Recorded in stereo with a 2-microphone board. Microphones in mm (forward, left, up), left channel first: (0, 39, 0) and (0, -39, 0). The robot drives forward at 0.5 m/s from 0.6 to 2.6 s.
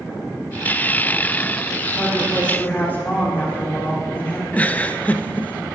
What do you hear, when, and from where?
1.9 s a woman speaking: 20° left (ahead or behind), 2 m
4.5 s a giggle: 20° left (ahead or behind), 0.8 m